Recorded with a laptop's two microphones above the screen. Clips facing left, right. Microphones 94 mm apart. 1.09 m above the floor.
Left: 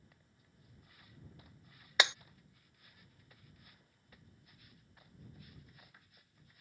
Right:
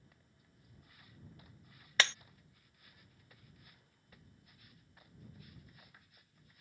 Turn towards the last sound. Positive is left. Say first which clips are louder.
# left 1 dB
turn(degrees=15)  # may be behind; listen again after turning